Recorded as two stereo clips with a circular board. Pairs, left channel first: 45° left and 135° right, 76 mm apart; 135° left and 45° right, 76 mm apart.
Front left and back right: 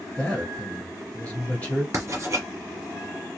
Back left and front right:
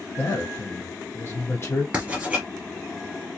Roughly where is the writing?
Right.